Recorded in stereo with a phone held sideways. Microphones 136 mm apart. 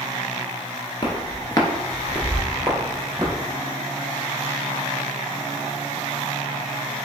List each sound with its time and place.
1.0 s footsteps: 40° left (ahead or behind), 1.1 m; by 3.3 s 15° right (ahead or behind), 1.6 m